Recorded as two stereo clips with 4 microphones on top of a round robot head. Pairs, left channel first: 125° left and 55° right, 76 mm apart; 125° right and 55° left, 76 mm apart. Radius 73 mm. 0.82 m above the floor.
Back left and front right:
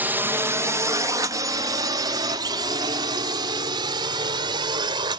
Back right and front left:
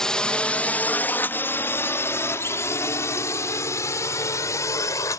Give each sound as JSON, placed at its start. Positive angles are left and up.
{"t": 0.0, "sound": "a drone", "azimuth_deg": -55}